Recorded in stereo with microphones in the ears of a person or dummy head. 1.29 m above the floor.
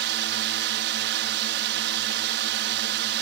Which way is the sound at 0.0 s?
55° right (ahead or behind).